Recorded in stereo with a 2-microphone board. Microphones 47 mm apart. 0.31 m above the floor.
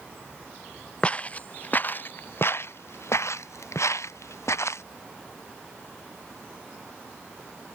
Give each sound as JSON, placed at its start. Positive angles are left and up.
{"t": 1.0, "sound": "footsteps", "side_deg": 30}